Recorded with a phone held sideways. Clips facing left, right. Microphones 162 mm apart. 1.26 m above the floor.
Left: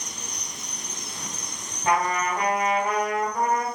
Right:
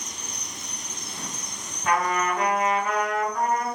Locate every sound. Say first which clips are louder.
0.0 s an insect: even; 40° left (ahead or behind), 0.7 m
1.9 s a trumpet: even; 30° left (ahead or behind), 1.7 m